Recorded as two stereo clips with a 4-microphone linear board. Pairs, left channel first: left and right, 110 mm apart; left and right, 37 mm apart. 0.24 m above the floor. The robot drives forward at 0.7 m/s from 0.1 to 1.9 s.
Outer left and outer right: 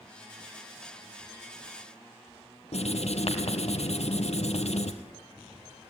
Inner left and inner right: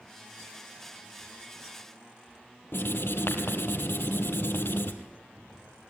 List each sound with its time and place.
2.7 s writing: 75° left (ahead or behind), 2.5 m